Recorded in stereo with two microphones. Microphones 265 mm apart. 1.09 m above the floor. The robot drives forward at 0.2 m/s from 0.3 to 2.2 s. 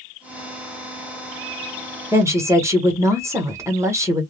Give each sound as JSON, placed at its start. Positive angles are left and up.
{"t": 2.1, "sound": "a woman speaking", "side_deg": -10, "distance_m": 0.9}